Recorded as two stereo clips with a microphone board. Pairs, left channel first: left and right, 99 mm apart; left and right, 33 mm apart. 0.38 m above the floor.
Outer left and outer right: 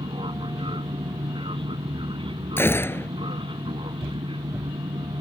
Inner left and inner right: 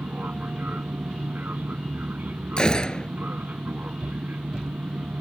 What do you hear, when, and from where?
0.0 s an aircraft: 65° right (ahead or behind)
2.6 s a gunshot: 25° left (ahead or behind)